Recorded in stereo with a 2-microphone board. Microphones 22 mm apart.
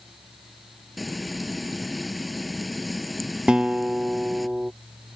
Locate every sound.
1.0 s frying: centre (ahead or behind)
3.5 s a guitar: 45° right (ahead or behind)